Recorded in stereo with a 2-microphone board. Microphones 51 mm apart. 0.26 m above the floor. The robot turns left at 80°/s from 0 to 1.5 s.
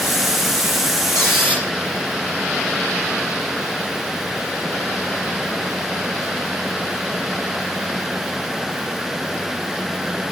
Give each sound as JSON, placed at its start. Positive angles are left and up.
{"t": 1.1, "sound": "a squeak", "side_deg": 60, "distance_m": 5.5}